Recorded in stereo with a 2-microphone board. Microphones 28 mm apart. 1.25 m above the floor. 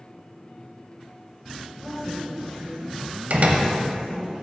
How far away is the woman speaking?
About 1.0 m.